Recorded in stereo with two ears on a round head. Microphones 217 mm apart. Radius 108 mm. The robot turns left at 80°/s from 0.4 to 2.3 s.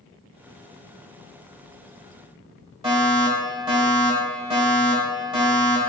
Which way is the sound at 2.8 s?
20° right (ahead or behind).